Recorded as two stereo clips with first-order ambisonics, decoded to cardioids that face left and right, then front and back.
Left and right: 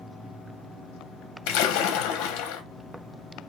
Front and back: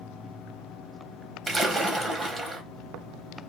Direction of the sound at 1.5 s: 100° left.